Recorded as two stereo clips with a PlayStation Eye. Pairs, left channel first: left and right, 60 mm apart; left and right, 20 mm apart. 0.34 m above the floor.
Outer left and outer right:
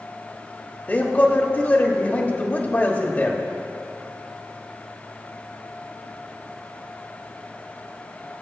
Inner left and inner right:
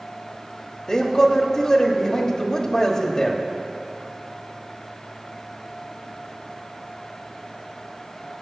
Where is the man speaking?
30° left (ahead or behind), 1.0 m.